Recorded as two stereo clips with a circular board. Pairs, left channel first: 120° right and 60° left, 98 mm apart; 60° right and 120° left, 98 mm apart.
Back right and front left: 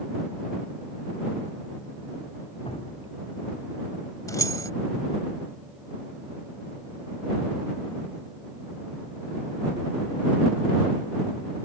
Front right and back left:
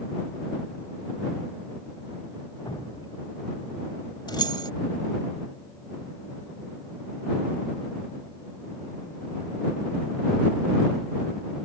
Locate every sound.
2.6 s dripping: 105° right
4.3 s keys jangling: 80° right